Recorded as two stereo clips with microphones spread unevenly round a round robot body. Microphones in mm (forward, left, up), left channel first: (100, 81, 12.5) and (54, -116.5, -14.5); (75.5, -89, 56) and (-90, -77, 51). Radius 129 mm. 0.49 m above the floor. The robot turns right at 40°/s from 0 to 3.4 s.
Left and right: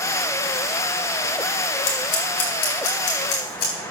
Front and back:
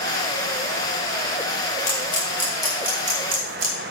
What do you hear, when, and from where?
1.9 s scissors: 55° left, 3.5 m; by 3.7 s 115° left, 3.5 m